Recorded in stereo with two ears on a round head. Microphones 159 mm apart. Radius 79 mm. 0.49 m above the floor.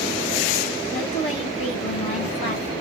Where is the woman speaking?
40° left (ahead or behind), 1.5 m.